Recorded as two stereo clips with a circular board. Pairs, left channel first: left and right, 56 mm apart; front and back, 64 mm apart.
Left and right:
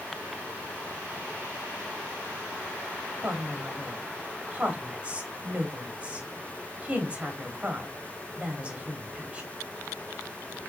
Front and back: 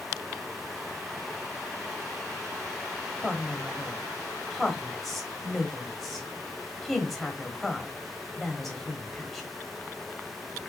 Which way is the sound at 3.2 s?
90° right.